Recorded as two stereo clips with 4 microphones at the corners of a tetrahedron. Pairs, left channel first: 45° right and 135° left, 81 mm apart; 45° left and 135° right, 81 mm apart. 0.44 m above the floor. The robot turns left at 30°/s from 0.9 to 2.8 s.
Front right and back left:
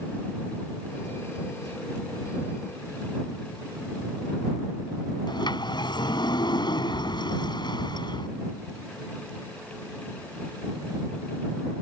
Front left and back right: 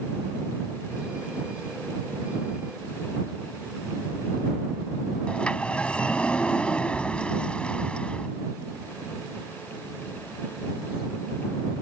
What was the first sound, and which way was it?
A sliding door, 30° right.